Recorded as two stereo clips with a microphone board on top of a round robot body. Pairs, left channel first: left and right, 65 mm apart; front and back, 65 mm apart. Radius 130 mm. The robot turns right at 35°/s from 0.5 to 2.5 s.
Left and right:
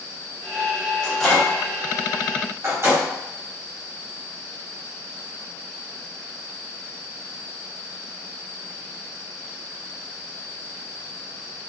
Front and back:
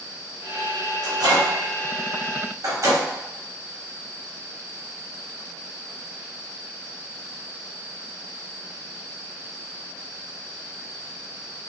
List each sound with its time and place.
1.0 s a microwave: 175° left, 1.3 m; by 3.0 s 135° right, 1.3 m